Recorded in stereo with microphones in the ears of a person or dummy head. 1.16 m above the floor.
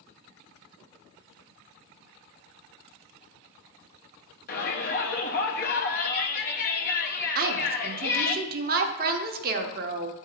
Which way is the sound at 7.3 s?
45° right (ahead or behind).